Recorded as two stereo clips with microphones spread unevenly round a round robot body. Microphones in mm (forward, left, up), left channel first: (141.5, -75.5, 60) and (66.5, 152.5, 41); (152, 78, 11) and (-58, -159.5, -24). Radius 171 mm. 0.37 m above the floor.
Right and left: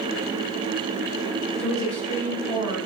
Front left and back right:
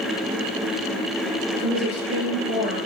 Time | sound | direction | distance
1.6 | a woman speaking | 10° right | 4 m